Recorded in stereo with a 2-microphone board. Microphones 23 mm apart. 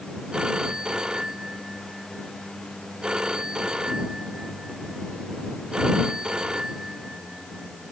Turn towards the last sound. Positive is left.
turn(degrees=-35)  # may be behind; listen again after turning